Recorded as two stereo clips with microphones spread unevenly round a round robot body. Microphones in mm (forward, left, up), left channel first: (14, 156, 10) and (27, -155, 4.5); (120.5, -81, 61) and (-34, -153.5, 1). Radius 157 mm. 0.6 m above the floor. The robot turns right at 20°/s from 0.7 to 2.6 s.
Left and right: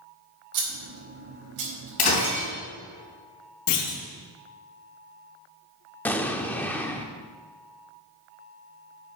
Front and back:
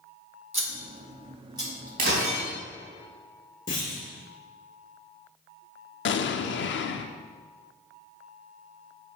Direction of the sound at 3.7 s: 90° left.